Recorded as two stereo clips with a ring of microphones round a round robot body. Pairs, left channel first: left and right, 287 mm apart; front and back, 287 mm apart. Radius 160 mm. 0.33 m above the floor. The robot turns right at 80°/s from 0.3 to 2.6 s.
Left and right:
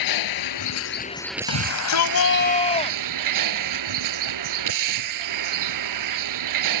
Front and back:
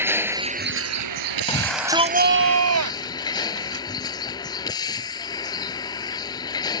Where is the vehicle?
100° left; by 6.8 s 80° right.